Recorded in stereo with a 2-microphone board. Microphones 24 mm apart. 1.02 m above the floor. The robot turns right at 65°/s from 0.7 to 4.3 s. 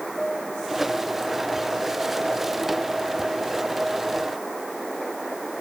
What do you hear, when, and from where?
0.2 s a piano: 15° left (ahead or behind)